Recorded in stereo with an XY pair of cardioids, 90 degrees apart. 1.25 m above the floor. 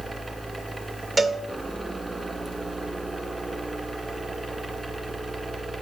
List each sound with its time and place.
0.0 s a fan: 30° right, 1.9 m
1.2 s a cowbell: 35° right, 1.2 m